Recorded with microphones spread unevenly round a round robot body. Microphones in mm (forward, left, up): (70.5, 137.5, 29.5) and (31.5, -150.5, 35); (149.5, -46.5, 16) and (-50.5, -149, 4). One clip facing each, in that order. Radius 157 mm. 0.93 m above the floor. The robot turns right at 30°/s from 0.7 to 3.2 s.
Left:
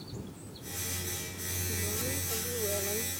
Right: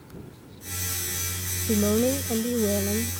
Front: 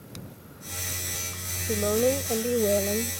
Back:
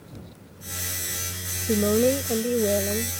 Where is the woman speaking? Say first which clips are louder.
Right 17 dB, back 4 dB; 105° right; by 3.1 s 60° right.